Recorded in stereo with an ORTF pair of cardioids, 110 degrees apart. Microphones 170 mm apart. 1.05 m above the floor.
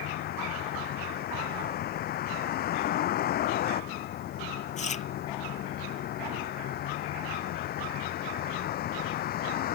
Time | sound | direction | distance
0.0 | a vehicle | 65° left | ?
4.8 | chewing | 45° left | ?